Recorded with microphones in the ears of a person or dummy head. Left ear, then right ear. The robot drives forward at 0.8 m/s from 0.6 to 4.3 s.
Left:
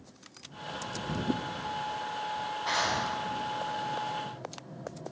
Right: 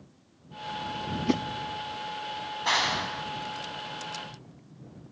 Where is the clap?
40° right (ahead or behind), 7 m; by 4.5 s 35° right (ahead or behind), 8 m.